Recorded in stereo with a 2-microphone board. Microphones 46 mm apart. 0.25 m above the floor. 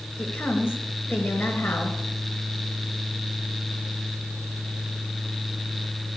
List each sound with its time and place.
0.2 s a woman speaking: 35° left (ahead or behind), 3 m